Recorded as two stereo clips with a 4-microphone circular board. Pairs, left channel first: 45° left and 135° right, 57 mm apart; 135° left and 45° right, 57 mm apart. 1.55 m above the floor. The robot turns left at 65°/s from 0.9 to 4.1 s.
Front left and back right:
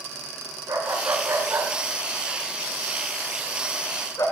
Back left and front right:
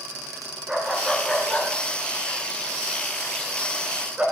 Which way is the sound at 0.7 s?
125° right.